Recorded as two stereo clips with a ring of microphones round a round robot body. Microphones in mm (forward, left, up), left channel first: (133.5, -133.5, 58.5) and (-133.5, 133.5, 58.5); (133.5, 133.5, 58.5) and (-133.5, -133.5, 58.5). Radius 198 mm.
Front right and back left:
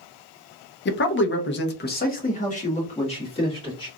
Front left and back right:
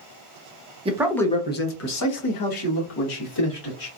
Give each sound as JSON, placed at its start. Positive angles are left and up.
{"t": 0.8, "sound": "a man speaking", "azimuth_deg": -75, "distance_m": 0.6}